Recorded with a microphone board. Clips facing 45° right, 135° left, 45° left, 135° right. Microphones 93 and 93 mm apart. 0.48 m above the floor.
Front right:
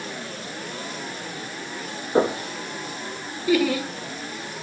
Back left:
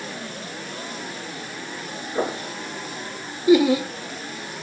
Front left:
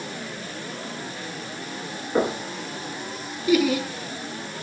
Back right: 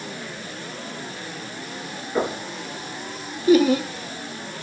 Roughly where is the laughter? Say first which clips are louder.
Back left 5 dB, back right 4 dB; behind.